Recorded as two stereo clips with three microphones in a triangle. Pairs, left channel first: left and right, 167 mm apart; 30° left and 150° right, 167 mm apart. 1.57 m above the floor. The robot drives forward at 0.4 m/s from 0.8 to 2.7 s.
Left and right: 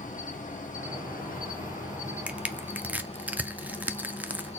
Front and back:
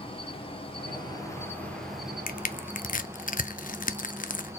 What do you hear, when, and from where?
0.0 s an insect: 75° left, 0.7 m; by 4.6 s 135° left, 0.9 m
2.3 s crushing: 5° right, 0.6 m; by 4.5 s 10° right, 0.5 m